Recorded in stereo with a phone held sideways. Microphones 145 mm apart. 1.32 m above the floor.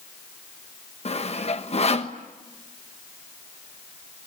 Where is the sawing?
45° left (ahead or behind), 1.3 m.